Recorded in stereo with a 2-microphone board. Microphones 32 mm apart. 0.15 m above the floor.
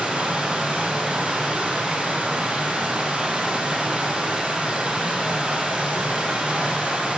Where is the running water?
35° right (ahead or behind), 2 m.